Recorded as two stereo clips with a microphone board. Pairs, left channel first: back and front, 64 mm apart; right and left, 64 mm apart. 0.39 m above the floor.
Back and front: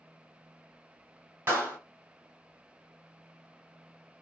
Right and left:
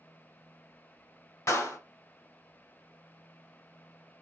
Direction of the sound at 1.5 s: 55° right.